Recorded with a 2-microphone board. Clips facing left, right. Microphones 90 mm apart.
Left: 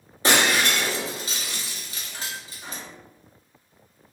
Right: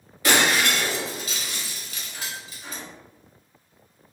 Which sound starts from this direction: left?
Breaking glass, at 0.2 s.